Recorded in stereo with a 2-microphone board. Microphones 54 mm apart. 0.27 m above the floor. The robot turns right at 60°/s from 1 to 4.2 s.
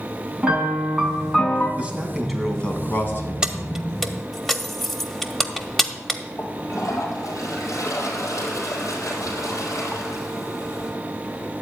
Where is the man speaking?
35° right, 1.9 m; by 3.3 s 60° left, 1.9 m.